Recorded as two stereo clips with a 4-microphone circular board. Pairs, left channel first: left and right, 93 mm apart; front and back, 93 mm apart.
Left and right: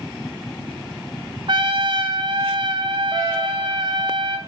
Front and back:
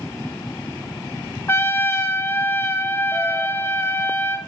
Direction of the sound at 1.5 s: 65° right.